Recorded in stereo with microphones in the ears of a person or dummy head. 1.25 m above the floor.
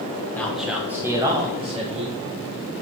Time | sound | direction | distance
0.3 | a man speaking | 5° left (ahead or behind) | 1.4 m